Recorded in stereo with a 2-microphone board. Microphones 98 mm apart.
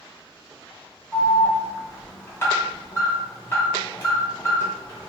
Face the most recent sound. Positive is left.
turn(degrees=25)  # may be behind; listen again after turning